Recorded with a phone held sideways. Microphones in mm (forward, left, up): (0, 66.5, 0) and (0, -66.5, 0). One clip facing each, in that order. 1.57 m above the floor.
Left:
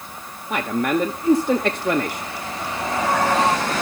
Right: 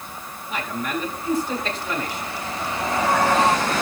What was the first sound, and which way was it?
A man speaking, 65° left (ahead or behind).